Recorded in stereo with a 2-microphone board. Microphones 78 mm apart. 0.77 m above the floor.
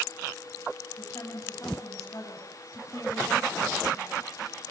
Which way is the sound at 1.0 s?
40° left (ahead or behind).